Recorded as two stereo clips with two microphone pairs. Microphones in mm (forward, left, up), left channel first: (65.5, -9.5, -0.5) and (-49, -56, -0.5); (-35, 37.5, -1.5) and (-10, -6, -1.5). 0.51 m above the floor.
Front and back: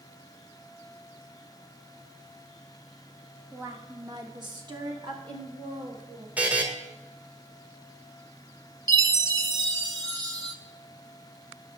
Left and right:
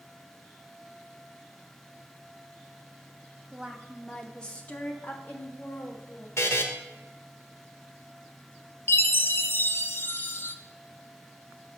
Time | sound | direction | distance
3.5 | a woman speaking | 105° right | 0.9 m
6.4 | a buzzer | 125° left | 1.0 m
8.9 | a chime | 150° left | 0.7 m